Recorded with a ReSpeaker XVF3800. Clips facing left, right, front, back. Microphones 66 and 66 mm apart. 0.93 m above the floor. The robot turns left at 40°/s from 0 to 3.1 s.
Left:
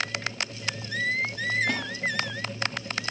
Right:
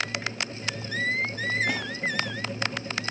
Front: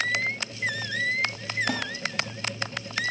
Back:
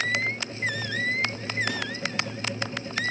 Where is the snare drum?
10° right, 2 m; by 1.9 s 15° right, 2 m.